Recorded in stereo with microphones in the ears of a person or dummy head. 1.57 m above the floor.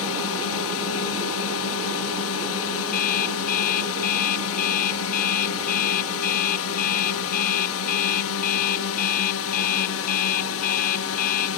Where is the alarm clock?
45° left (ahead or behind).